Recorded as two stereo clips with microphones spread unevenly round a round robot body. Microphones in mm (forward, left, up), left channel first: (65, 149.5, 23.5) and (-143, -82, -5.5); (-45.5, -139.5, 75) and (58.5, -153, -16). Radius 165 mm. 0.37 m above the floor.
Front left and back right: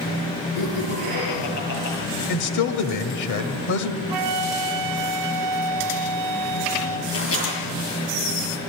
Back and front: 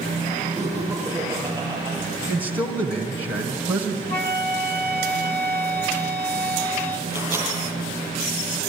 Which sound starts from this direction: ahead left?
A man speaking, at 2.3 s.